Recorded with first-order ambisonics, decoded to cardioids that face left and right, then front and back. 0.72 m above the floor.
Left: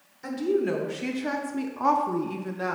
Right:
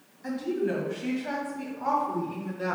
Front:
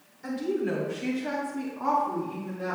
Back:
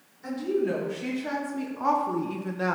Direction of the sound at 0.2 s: 80° left.